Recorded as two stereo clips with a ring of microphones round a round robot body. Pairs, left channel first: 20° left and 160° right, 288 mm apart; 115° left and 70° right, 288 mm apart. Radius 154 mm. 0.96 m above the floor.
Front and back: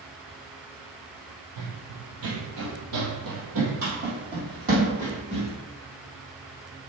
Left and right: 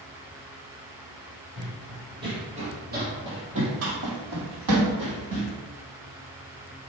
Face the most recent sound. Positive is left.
turn(degrees=-85)